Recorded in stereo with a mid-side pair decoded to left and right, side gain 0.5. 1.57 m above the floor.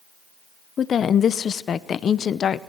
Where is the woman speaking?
45° left, 0.8 m.